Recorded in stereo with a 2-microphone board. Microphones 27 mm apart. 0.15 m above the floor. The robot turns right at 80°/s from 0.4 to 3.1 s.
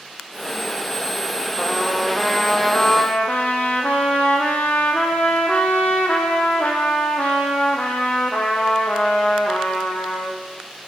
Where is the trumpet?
35° right, 3.5 m; by 10.4 s 85° left, 3.5 m.